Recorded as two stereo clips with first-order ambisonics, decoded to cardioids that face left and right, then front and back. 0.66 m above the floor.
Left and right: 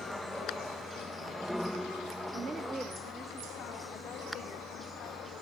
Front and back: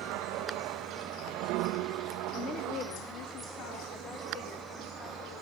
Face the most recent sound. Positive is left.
turn(degrees=35)